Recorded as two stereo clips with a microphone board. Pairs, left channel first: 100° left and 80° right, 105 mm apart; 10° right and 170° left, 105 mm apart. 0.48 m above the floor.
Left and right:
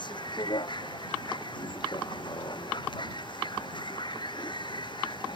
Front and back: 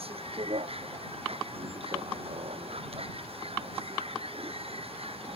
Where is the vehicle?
145° left.